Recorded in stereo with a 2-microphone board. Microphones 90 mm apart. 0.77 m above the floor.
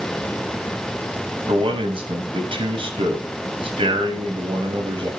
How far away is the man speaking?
About 5 m.